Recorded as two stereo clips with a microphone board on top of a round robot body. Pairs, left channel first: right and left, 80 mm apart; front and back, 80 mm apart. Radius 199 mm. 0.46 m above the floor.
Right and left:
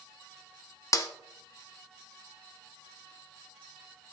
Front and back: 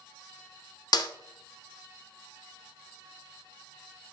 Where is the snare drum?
40° right, 0.6 m.